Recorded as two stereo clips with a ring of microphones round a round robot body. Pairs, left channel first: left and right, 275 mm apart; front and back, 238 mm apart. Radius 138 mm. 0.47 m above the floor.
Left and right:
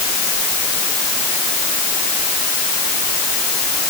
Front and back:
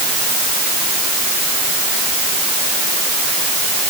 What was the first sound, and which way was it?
Only background noise.